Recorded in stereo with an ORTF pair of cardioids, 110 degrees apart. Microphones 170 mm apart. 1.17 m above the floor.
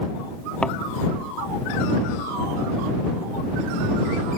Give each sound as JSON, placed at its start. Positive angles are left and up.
{"t": 0.6, "sound": "a thud", "azimuth_deg": 5}